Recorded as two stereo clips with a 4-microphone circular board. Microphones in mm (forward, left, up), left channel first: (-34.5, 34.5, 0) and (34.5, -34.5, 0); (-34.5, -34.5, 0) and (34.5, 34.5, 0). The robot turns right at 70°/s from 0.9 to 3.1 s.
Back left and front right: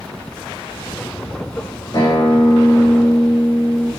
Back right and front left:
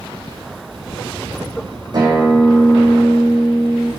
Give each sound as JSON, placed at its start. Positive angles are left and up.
{"t": 1.9, "sound": "a guitar", "azimuth_deg": 85, "distance_m": 6.0}